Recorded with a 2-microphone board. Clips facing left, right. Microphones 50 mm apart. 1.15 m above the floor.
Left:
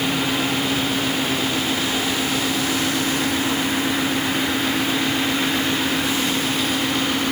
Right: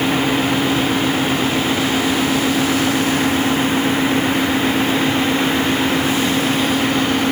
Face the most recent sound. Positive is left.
No sound to turn to.